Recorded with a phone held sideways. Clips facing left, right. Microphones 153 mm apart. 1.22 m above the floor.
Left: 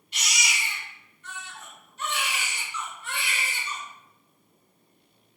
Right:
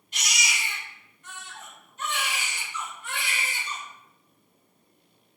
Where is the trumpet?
No trumpet in this recording.